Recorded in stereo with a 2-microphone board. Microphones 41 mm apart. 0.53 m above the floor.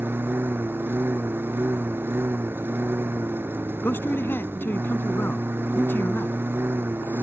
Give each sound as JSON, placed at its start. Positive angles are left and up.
{"t": 0.0, "sound": "a lawn mower", "side_deg": -70}
{"t": 3.8, "sound": "a man speaking", "side_deg": 75}